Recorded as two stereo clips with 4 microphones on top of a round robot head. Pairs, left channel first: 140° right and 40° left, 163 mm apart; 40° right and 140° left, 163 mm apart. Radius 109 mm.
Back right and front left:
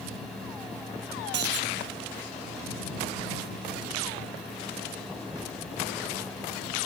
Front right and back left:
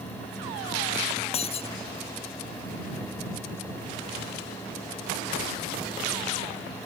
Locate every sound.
1.3 s breaking glass: 15° left